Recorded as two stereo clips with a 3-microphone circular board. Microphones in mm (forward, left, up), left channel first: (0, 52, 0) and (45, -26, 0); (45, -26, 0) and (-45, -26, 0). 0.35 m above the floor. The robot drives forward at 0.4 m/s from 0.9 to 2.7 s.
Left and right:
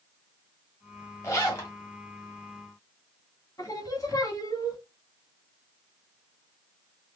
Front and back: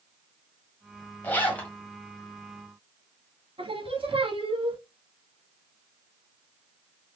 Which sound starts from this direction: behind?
Singing, at 3.6 s.